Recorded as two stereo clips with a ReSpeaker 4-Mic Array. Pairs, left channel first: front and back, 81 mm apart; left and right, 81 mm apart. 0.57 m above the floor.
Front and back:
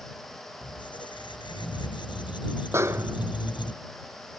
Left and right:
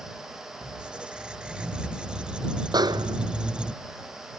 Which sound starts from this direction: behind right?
A snare drum, at 2.7 s.